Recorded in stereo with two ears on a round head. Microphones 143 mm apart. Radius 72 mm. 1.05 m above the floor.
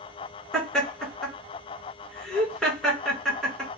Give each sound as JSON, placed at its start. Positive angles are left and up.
{"t": 0.5, "sound": "laughter", "side_deg": 5, "distance_m": 1.6}